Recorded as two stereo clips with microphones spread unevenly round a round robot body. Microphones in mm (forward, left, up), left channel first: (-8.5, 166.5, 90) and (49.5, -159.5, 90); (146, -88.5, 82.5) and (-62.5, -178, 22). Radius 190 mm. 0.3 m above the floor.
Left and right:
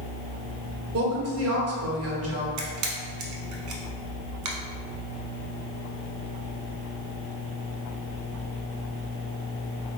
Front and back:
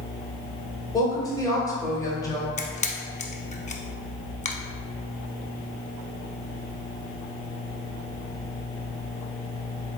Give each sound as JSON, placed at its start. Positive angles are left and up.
{"t": 0.9, "sound": "a woman speaking", "azimuth_deg": -65, "distance_m": 1.4}
{"t": 2.6, "sound": "a camera shutter", "azimuth_deg": -40, "distance_m": 0.8}